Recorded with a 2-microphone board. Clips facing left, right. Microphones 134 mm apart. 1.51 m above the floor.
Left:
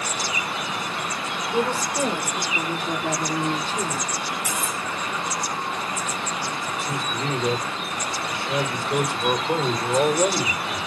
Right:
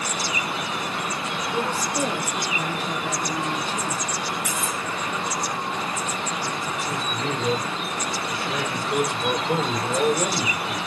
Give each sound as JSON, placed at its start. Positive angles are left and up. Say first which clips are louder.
{"t": 1.5, "sound": "a woman speaking", "louder": "left 3 dB", "side_deg": 5, "distance_m": 4.5}
{"t": 4.5, "sound": "cutlery clinking", "louder": "even", "side_deg": 40, "distance_m": 4.5}
{"t": 6.8, "sound": "a man speaking", "louder": "left 1 dB", "side_deg": 25, "distance_m": 5.5}